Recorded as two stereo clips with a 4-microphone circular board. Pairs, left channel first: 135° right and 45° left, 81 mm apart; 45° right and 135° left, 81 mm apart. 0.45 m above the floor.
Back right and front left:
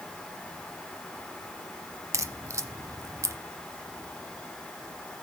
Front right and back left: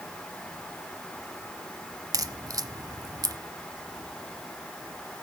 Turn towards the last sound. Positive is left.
turn(degrees=95)